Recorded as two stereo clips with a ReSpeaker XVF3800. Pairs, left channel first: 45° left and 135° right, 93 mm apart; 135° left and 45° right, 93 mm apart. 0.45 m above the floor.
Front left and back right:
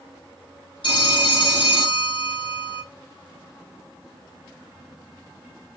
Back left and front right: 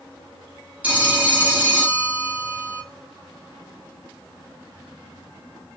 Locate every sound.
0.8 s a phone ringing: 30° left, 1.0 m